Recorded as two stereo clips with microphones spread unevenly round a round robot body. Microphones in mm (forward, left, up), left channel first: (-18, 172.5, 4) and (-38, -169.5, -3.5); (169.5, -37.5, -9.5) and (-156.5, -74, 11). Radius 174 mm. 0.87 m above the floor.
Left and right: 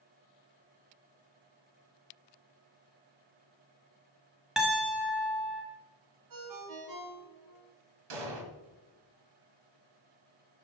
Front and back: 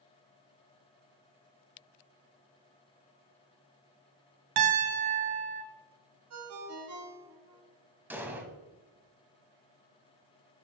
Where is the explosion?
90° right, 1.3 m.